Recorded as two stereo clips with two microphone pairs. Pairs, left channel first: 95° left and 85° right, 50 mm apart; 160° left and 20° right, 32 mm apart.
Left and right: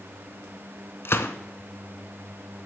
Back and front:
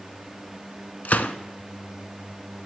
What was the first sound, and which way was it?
A gunshot, 130° left.